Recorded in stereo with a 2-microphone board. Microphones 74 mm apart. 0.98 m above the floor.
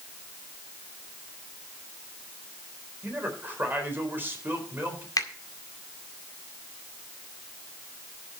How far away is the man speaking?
About 4 m.